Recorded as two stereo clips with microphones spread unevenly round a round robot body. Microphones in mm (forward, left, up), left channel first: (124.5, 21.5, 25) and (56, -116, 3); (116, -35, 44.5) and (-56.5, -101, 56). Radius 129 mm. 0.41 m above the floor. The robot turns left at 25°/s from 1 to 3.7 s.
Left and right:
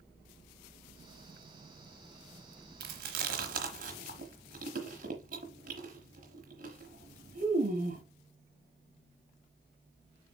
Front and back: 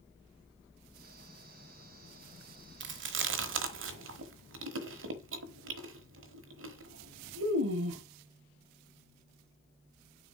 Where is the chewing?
140° right, 1.0 m; by 8.0 s 165° right, 1.0 m.